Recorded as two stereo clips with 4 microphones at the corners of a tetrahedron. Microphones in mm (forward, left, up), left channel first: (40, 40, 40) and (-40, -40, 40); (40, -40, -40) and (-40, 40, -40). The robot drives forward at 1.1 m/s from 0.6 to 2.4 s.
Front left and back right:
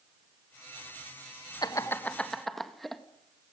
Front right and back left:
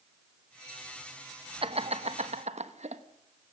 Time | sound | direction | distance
1.6 | laughter | 100° left | 1.1 m